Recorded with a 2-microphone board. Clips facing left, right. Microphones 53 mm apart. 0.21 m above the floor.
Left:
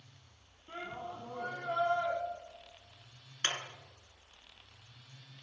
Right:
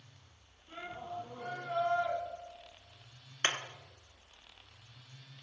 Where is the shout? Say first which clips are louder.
Left 1 dB; 50° left (ahead or behind), 6.5 m.